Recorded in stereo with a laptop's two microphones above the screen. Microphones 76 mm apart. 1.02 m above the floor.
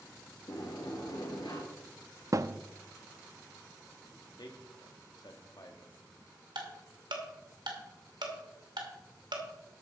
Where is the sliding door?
70° left (ahead or behind), 2.5 m.